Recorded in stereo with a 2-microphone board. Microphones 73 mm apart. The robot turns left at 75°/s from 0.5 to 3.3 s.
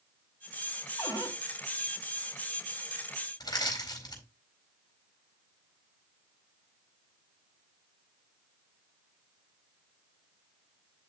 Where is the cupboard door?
45° left (ahead or behind), 3 m; by 1.4 s 75° left (ahead or behind), 3 m.